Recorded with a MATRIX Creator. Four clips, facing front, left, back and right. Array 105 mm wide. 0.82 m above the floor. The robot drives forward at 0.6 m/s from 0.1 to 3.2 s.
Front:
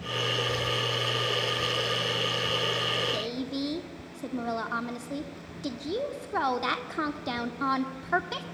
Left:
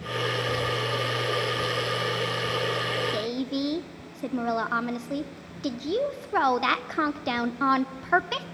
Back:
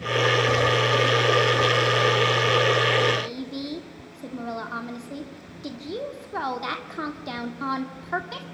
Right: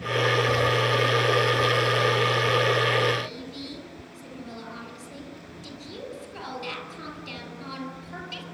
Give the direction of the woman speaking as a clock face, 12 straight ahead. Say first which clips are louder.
Left 5 dB, back 2 dB; 9 o'clock.